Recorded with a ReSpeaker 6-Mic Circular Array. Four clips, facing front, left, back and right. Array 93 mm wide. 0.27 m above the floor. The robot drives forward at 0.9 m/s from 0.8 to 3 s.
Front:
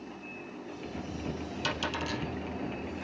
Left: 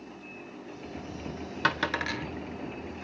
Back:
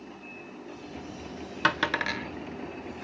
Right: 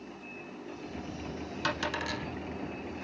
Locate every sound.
1.6 s a dropped coin: 150° left, 0.9 m; by 2.3 s 160° left, 1.4 m